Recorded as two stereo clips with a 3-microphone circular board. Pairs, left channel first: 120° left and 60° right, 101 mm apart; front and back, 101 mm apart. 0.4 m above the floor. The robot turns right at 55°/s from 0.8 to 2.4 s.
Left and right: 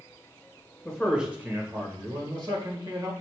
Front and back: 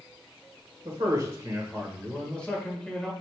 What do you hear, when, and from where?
0.8 s a man speaking: 160° right, 1.2 m; by 3.1 s 75° right, 1.2 m